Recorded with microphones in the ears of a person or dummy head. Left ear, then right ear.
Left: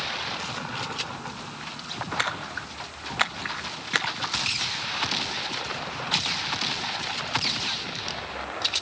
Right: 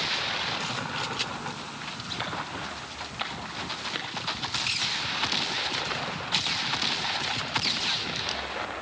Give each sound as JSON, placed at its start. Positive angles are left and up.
{"t": 2.2, "sound": "a splash", "side_deg": 60, "distance_m": 1.5}